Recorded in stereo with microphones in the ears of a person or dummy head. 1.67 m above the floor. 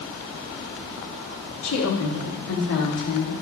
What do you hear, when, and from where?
1.6 s a woman speaking: 85° left, 3.5 m; by 3.3 s 75° left (ahead or behind), 4.5 m